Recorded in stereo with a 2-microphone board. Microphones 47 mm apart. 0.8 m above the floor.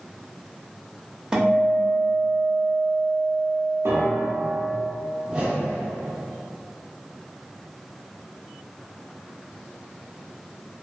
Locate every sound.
1.3 s a guitar: 15° right (ahead or behind), 0.5 m
3.9 s a piano: 75° right (ahead or behind), 0.5 m
5.2 s a whoosh: 20° right (ahead or behind), 0.7 m